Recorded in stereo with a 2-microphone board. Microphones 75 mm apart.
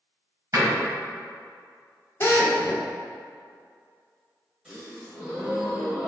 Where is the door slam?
45° right (ahead or behind), 1.8 m.